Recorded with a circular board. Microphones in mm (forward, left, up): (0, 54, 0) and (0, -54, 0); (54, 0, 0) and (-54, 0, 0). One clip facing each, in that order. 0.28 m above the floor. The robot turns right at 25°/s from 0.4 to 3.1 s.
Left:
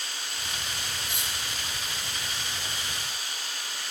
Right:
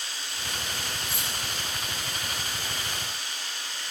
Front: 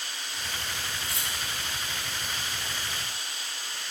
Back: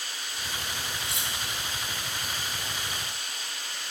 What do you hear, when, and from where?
0.0 s running water: 100° left, 2 m; by 3.9 s 165° left, 2 m
1.1 s cutlery clinking: 25° left, 1.0 m; by 1.3 s 30° left, 1.0 m